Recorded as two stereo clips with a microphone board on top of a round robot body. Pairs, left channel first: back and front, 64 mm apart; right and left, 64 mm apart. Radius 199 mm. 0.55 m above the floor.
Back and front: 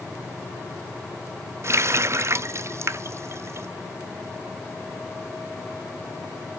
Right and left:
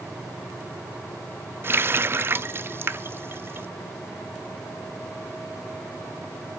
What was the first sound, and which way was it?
A running tap, 40° left.